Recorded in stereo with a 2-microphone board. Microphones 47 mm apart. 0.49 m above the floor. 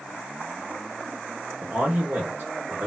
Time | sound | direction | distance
1.6 | a man speaking | 40° right (ahead or behind) | 1.5 m